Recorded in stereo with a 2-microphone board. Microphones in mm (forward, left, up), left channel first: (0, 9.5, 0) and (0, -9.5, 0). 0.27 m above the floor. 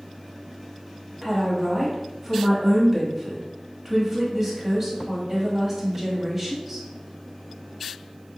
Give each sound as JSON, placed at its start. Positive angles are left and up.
{"t": 1.2, "sound": "a woman speaking", "side_deg": -20, "distance_m": 1.1}